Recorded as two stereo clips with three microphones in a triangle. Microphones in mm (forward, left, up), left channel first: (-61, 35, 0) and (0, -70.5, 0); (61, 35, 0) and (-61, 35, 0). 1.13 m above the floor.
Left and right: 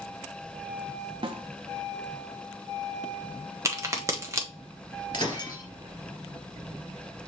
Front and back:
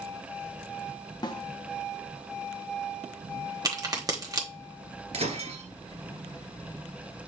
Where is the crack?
125° right, 1.1 m.